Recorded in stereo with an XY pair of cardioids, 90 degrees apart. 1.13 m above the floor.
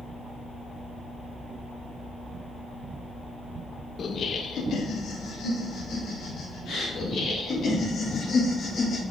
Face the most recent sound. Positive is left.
turn(degrees=60)